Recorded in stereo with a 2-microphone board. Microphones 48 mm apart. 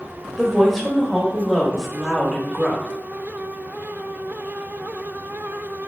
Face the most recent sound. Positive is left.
turn(degrees=0)  # may be behind; listen again after turning